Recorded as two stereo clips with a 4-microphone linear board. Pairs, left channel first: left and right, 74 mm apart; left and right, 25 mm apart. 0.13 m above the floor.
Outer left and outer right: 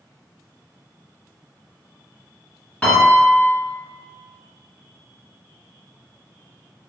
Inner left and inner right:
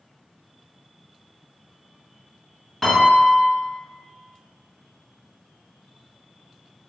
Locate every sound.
2.8 s a piano: 15° left (ahead or behind), 1.1 m